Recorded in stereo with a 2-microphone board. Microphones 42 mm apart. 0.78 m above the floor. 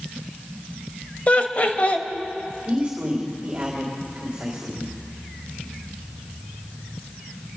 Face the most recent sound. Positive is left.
turn(degrees=-35)  # may be behind; listen again after turning